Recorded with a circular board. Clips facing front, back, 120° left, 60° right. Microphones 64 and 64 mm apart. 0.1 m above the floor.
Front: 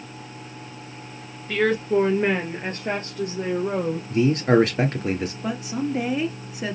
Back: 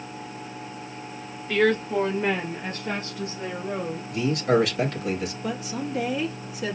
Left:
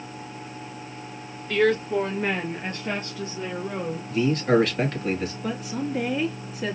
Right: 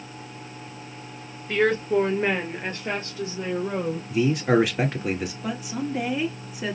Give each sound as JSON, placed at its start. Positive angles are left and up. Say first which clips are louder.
{"t": 1.5, "sound": "a woman speaking", "louder": "front 1 dB, even", "azimuth_deg": -85, "distance_m": 1.2}
{"t": 4.1, "sound": "a man speaking", "louder": "front 4 dB, even", "azimuth_deg": 10, "distance_m": 1.6}
{"t": 5.4, "sound": "a woman speaking", "louder": "front 3 dB, even", "azimuth_deg": 10, "distance_m": 1.6}